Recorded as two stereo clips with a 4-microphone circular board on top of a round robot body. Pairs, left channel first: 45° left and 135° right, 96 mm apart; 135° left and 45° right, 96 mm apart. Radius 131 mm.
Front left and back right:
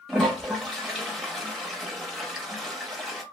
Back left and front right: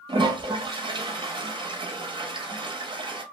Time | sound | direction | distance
0.1 | a toilet flushing | 45° right | 0.8 m